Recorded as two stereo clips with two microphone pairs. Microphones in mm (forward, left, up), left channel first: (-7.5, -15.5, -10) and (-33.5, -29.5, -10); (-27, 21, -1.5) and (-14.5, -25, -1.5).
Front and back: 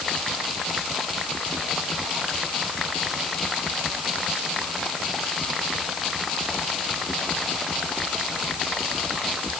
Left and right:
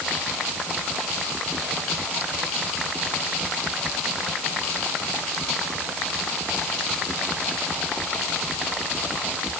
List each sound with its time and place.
Only background noise.